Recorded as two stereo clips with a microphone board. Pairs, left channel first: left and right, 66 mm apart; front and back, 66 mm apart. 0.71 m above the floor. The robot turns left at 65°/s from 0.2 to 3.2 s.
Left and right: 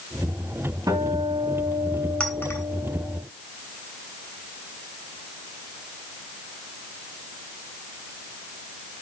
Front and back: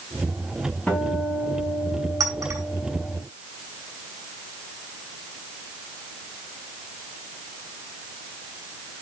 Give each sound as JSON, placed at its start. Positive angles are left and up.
{"t": 0.9, "sound": "a guitar", "azimuth_deg": -70, "distance_m": 3.5}
{"t": 2.2, "sound": "a clink", "azimuth_deg": 165, "distance_m": 2.5}